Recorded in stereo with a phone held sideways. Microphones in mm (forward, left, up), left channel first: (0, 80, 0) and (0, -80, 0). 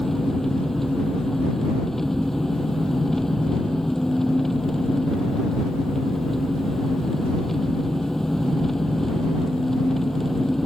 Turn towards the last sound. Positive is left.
turn(degrees=0)  # may be behind; listen again after turning